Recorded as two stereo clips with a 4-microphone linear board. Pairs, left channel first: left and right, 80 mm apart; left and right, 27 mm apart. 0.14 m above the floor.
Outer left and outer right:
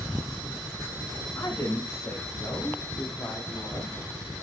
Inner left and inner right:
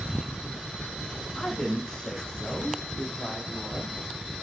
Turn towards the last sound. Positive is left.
turn(degrees=40)  # may be behind; listen again after turning